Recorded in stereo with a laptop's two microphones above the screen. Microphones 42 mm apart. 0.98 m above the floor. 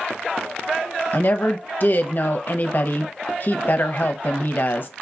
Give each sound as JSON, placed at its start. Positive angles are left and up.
{"t": 1.1, "sound": "a woman speaking", "side_deg": 50, "distance_m": 0.8}